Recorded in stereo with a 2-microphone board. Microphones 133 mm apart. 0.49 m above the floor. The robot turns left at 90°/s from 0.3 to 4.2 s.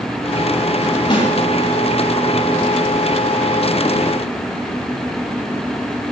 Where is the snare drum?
35° left (ahead or behind), 8 m; by 1.3 s 55° left (ahead or behind), 8 m.